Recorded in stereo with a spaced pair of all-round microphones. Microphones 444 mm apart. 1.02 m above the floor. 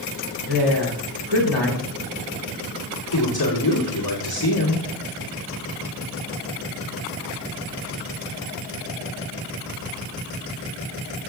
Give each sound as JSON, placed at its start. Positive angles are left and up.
{"t": 0.5, "sound": "a woman speaking", "side_deg": -60, "distance_m": 4.0}
{"t": 3.1, "sound": "a man speaking", "side_deg": 55, "distance_m": 3.0}